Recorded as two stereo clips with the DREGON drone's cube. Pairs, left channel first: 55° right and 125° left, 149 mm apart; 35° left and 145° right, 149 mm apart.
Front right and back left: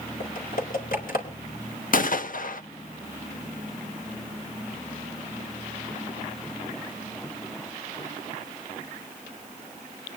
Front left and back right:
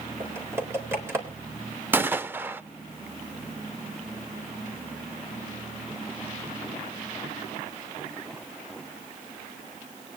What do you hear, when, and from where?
0.2 s typing on a keyboard: 70° right, 3.5 m
1.9 s a gunshot: 70° right, 0.6 m